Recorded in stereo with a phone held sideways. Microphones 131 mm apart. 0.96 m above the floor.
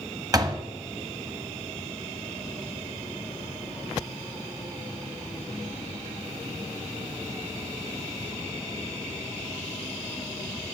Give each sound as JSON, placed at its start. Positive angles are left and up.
{"t": 0.3, "sound": "a door slam", "side_deg": -30, "distance_m": 1.1}